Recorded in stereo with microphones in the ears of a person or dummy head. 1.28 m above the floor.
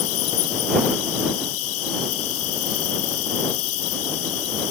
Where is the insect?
80° left.